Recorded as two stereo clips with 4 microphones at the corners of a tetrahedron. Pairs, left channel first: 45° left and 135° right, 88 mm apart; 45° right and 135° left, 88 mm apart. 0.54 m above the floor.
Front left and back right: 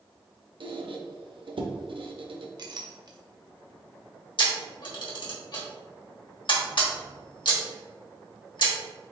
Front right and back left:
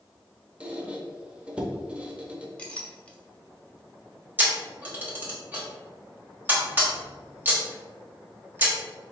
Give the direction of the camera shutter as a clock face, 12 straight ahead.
10 o'clock.